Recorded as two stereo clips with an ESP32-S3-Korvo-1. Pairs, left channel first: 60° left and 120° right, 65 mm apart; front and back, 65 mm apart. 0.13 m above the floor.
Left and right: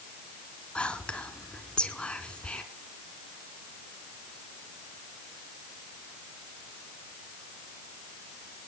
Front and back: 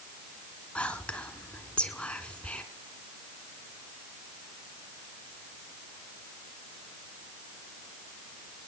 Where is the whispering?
25° left, 1.6 m.